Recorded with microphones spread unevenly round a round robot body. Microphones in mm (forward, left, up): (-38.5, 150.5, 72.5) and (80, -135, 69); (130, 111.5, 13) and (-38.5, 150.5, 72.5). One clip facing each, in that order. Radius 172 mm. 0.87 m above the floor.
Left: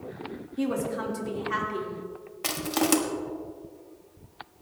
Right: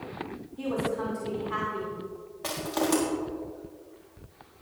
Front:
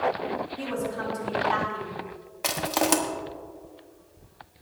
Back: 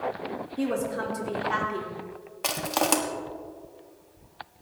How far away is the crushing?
About 1.5 m.